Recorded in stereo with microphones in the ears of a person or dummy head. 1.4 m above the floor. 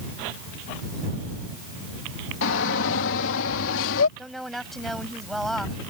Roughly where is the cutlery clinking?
No cutlery clinking in this recording.